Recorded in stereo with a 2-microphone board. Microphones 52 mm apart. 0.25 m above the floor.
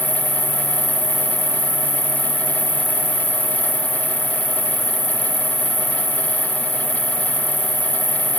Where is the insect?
40° left (ahead or behind), 1.5 m.